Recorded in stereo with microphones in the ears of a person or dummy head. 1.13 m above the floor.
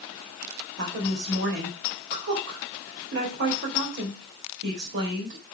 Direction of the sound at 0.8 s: 50° right (ahead or behind).